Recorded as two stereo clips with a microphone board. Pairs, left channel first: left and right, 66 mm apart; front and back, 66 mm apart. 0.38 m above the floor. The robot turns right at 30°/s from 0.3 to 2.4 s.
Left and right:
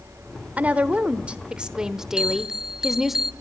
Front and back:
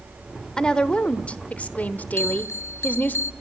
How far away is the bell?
About 0.8 m.